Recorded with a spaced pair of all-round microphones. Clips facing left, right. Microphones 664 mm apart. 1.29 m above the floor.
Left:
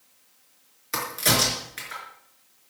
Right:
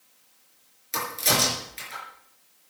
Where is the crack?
80° left, 5.5 m.